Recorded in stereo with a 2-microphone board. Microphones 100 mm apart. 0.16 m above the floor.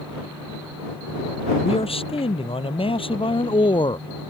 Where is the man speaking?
70° left (ahead or behind); by 4.1 s 55° left (ahead or behind).